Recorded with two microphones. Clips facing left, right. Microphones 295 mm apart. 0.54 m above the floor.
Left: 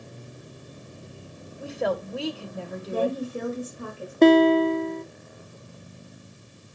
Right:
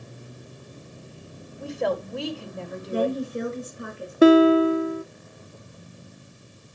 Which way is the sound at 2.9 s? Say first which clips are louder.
Right 1 dB; 15° right (ahead or behind).